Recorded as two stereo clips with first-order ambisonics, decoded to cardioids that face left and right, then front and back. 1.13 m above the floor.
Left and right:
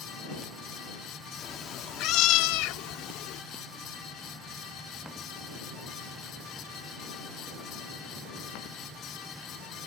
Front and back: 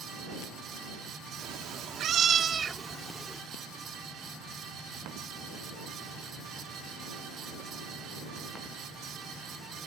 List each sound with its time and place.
1.4 s a cat meowing: 150° left; by 3.4 s 95° left